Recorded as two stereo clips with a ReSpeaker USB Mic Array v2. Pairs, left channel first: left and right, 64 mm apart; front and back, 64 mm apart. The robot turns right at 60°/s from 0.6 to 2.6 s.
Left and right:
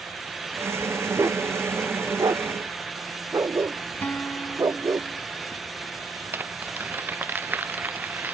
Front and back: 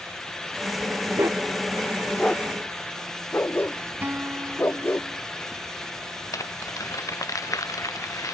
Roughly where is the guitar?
Behind left.